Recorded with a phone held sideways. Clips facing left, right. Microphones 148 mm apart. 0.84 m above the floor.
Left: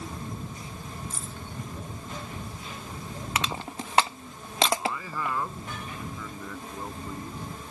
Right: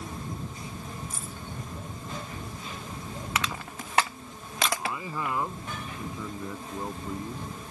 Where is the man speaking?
15° right (ahead or behind).